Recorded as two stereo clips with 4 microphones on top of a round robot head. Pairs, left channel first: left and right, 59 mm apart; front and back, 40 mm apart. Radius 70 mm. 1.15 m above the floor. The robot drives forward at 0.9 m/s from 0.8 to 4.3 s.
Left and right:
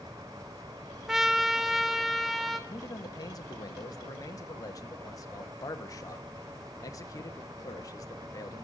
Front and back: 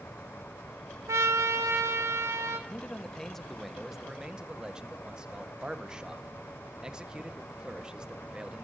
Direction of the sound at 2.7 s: 65° left.